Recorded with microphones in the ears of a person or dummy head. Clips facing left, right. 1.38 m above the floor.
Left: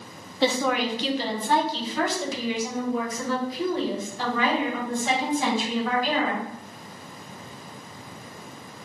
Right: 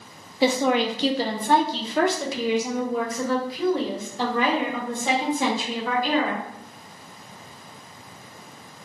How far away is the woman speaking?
About 0.5 m.